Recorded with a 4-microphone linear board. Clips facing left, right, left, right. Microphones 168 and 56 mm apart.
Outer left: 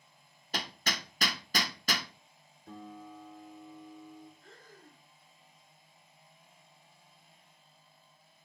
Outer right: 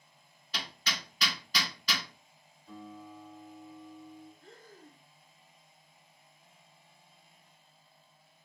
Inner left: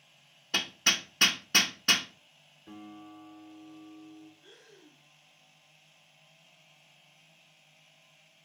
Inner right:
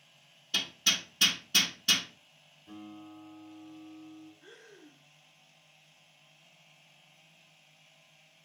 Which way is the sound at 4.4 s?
55° right (ahead or behind).